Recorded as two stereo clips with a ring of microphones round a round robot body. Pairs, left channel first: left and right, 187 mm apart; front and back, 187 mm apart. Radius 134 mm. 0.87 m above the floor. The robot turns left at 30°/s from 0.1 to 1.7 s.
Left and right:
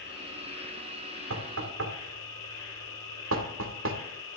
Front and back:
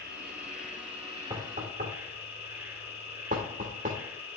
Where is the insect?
145° left, 7 m; by 4.4 s 100° left, 7 m.